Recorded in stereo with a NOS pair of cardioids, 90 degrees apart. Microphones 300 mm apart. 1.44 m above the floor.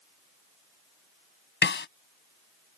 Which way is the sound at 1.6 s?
40° left.